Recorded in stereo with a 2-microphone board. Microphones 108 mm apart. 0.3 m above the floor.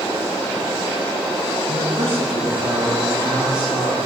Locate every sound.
1.7 s a man speaking: 65° right (ahead or behind), 4 m; by 4.0 s 55° right (ahead or behind), 5.5 m